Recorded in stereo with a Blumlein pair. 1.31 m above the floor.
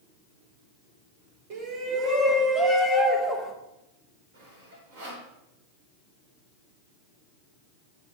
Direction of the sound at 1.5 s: 45° right.